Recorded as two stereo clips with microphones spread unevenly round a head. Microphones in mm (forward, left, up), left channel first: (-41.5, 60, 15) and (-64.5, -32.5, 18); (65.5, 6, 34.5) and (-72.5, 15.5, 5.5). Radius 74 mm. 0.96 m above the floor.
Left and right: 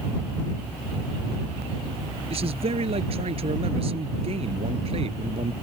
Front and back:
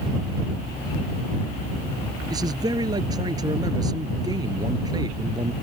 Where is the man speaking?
120° right.